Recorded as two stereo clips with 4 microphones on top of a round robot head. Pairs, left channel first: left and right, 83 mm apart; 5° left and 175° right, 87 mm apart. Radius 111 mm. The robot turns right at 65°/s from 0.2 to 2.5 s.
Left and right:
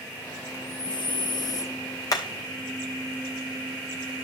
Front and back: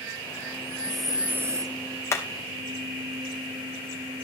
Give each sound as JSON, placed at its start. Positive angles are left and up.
{"t": 0.6, "sound": "breathing", "azimuth_deg": 65, "distance_m": 0.9}
{"t": 2.1, "sound": "hammering", "azimuth_deg": 60, "distance_m": 0.9}